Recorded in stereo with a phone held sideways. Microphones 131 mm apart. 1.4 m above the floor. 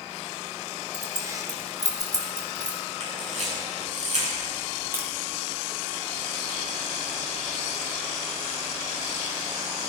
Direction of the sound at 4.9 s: 20° right (ahead or behind).